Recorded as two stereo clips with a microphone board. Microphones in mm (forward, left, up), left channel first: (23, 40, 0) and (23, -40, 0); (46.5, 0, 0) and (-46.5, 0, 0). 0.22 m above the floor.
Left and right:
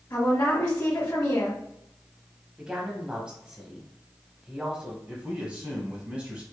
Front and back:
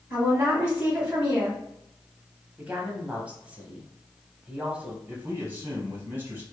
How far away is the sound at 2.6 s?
About 1.0 m.